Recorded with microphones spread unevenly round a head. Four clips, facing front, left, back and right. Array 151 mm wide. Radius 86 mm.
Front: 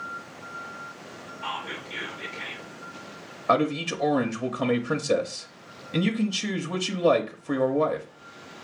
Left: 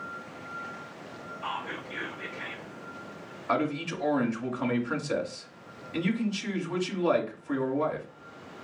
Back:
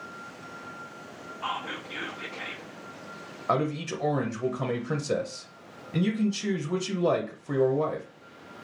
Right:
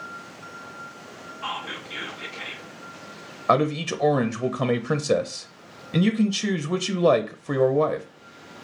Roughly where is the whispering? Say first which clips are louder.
Right 2 dB, back 1 dB; behind.